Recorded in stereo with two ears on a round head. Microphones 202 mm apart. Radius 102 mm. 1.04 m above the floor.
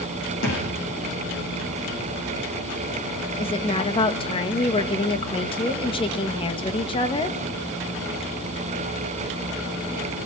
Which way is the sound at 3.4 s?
25° left (ahead or behind).